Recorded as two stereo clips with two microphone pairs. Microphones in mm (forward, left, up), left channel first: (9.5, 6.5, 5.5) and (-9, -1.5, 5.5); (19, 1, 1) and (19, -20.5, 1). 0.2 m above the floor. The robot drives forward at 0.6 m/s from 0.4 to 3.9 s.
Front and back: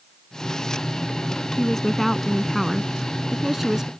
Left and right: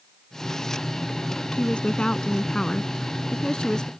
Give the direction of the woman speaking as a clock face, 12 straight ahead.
9 o'clock.